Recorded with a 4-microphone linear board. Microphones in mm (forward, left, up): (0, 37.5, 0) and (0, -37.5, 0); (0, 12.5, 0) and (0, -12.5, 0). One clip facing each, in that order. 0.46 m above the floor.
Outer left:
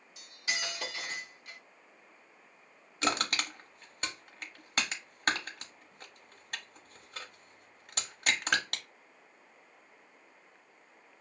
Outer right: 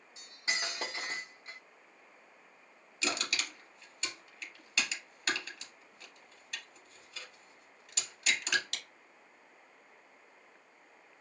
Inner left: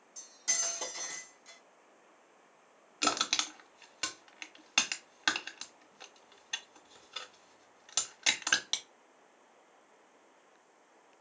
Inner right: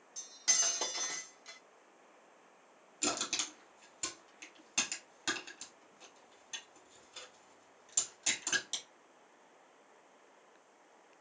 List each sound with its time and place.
0.2 s cutlery clinking: 30° right (ahead or behind), 0.7 m
3.0 s crushing: 50° left (ahead or behind), 0.7 m